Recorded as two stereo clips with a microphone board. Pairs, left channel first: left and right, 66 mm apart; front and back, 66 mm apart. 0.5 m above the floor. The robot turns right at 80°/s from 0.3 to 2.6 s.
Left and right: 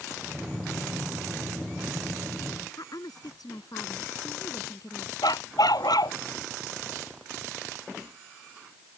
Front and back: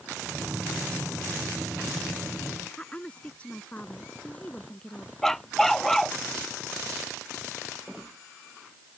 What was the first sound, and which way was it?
A woman speaking, 70° left.